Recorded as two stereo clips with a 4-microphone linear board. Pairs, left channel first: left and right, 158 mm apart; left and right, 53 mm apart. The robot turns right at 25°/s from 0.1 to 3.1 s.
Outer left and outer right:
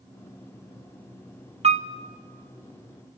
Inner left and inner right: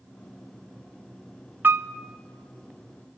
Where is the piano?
40° right (ahead or behind), 0.8 m; by 1.9 s 50° right (ahead or behind), 0.8 m.